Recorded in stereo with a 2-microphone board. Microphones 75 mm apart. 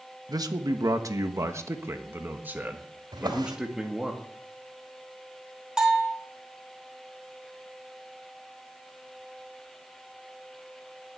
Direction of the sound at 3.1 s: 90° right.